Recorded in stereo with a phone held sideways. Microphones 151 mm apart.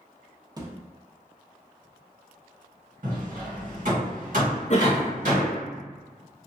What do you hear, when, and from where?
0.6 s a thud: 25° right (ahead or behind), 0.6 m
3.0 s hammering: 60° right (ahead or behind), 1.5 m
4.7 s a cough: 50° left (ahead or behind), 0.7 m